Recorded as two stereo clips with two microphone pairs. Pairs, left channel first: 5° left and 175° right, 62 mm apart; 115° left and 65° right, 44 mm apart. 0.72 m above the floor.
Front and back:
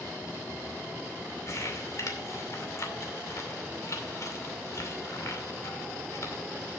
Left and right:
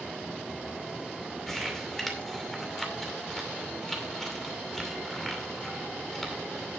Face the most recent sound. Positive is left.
turn(degrees=30)